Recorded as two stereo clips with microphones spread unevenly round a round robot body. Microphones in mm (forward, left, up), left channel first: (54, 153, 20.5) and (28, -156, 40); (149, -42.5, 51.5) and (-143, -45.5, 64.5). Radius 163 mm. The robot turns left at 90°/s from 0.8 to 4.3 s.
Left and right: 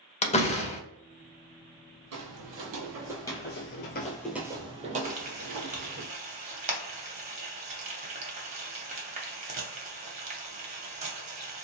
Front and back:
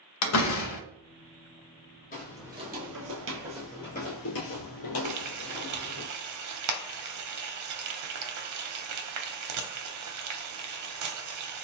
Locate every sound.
0.2 s a door slam: 20° left, 0.7 m
2.1 s footsteps: 60° right, 1.1 m; by 6.0 s 45° right, 1.3 m
5.0 s frying: 165° right, 0.7 m